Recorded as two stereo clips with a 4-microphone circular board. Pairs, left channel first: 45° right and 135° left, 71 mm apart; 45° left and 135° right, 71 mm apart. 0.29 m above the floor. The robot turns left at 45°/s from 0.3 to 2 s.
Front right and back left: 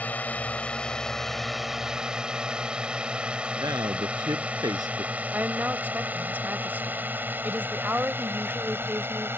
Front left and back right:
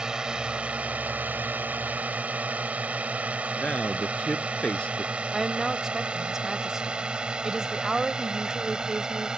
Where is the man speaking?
120° left.